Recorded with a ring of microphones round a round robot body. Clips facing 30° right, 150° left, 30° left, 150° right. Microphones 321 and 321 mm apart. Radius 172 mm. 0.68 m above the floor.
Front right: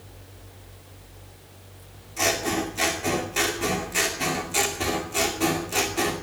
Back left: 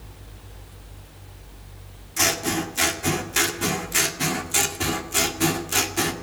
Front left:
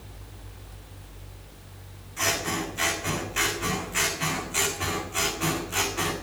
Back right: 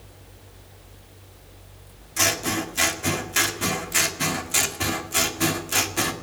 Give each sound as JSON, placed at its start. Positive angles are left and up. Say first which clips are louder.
{"t": 2.2, "sound": "scissors", "louder": "even, back right 3 dB", "azimuth_deg": -155, "distance_m": 2.0}